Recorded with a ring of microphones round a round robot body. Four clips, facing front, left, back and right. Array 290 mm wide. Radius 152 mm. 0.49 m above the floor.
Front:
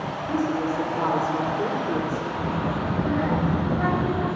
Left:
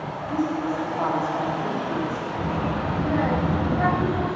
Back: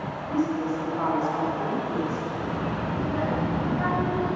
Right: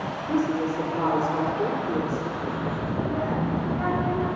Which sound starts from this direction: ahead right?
A woman speaking, at 0.3 s.